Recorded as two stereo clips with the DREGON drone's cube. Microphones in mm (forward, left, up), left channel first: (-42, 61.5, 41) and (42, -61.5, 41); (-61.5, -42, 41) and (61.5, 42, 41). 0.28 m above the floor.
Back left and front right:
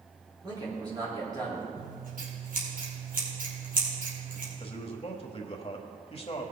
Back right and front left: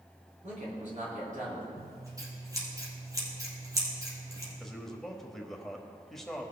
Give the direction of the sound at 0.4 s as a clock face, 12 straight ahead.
12 o'clock.